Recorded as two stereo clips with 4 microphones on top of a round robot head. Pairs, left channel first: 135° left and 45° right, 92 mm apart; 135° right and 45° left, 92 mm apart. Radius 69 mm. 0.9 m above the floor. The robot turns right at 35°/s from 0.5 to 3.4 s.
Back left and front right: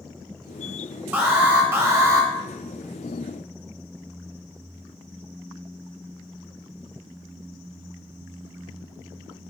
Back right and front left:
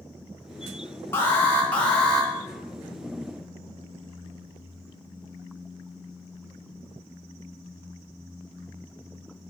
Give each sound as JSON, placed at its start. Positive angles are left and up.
{"t": 1.1, "sound": "an alarm", "azimuth_deg": -95, "distance_m": 1.2}